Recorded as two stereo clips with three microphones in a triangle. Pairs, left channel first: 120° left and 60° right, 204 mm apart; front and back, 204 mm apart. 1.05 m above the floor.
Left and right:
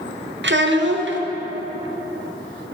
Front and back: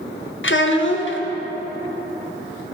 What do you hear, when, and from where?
0.4 s a child speaking: 30° right, 0.5 m